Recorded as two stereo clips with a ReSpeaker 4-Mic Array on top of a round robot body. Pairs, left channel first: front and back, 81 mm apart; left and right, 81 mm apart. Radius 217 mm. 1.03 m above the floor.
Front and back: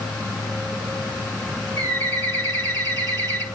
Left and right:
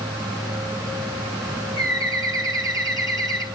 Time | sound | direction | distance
1.8 | a bird | 50° right | 3 m